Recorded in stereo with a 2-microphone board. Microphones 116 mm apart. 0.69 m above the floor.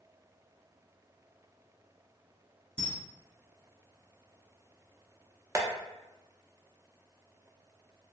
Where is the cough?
No cough in this recording.